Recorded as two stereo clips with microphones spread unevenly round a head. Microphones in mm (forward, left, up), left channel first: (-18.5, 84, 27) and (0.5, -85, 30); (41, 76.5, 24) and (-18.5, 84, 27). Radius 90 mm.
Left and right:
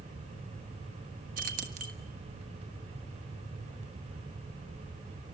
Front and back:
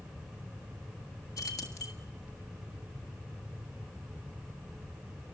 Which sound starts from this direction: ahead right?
Keys jangling, at 1.4 s.